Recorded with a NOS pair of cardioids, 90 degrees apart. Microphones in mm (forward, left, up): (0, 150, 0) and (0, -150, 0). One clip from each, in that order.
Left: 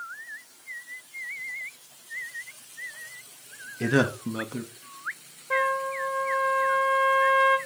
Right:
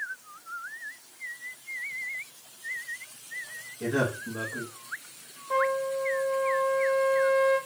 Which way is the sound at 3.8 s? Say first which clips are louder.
Left 4 dB; 60° left.